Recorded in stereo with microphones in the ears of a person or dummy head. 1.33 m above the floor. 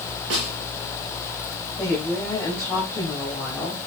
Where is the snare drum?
80° right, 4.5 m.